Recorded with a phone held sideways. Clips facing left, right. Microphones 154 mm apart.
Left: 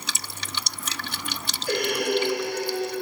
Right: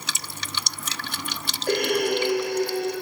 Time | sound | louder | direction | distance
1.7 | breathing | right 2 dB | 55° right (ahead or behind) | 3.5 m